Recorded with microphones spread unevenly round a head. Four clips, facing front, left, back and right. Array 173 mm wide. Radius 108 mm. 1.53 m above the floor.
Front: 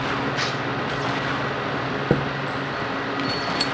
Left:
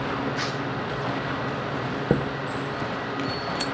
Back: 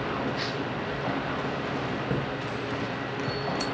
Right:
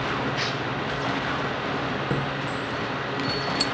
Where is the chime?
50° left, 0.7 m.